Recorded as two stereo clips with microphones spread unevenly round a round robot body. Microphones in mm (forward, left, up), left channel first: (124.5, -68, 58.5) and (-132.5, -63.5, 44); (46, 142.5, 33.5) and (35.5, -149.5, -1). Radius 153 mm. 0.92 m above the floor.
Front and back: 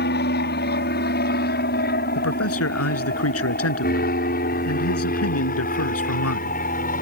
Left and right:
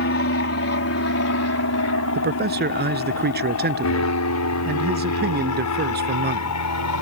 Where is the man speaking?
35° right.